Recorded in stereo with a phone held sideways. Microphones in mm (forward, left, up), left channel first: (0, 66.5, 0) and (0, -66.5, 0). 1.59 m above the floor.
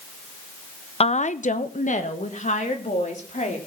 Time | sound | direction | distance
1.0 | a woman speaking | 50° left (ahead or behind) | 0.6 m